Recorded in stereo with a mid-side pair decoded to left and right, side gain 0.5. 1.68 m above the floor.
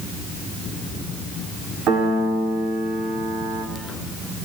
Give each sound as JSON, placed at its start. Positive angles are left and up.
{"t": 1.9, "sound": "a piano", "azimuth_deg": -70, "distance_m": 6.0}